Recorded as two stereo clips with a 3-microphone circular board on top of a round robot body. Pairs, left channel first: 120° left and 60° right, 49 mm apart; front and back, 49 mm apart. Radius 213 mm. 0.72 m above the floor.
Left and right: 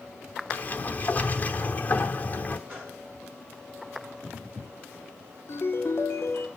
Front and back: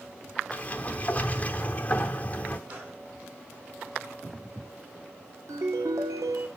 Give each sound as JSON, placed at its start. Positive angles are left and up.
{"t": 0.5, "sound": "a sliding door", "azimuth_deg": 60, "distance_m": 0.9}
{"t": 2.7, "sound": "a gunshot", "azimuth_deg": -130, "distance_m": 8.5}
{"t": 5.5, "sound": "a ringtone", "azimuth_deg": 160, "distance_m": 1.6}